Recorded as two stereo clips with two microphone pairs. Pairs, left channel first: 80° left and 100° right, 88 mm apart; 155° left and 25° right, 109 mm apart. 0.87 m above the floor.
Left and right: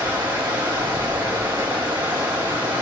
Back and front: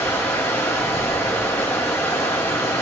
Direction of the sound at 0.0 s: 135° right.